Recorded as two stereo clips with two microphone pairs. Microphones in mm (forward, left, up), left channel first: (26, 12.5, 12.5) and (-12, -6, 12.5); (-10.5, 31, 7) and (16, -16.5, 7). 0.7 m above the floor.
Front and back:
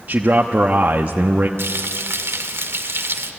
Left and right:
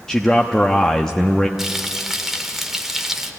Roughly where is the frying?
Behind right.